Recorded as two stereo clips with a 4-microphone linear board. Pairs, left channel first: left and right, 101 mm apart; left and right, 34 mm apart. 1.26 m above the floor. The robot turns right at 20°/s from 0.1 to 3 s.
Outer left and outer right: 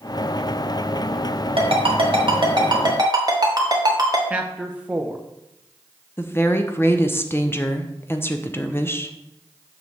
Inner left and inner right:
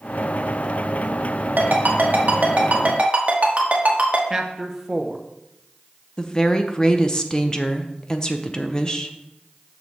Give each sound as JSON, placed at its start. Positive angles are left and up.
{"t": 1.6, "sound": "a ringtone", "side_deg": -70, "distance_m": 1.5}
{"t": 4.3, "sound": "a man speaking", "side_deg": -15, "distance_m": 0.8}
{"t": 6.2, "sound": "a woman speaking", "side_deg": 25, "distance_m": 0.7}